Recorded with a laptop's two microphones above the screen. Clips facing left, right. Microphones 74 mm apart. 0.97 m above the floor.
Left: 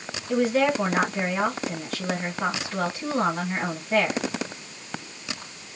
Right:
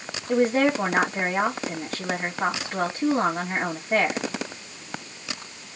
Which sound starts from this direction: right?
A woman speaking, at 0.3 s.